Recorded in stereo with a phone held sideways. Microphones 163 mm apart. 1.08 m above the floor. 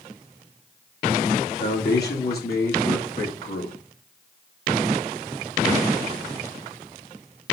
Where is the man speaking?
75° left (ahead or behind), 1.9 m; by 3.7 s 60° left (ahead or behind), 2 m.